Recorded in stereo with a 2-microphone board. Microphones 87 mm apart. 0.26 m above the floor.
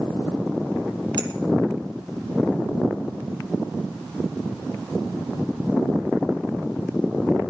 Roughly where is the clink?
Right.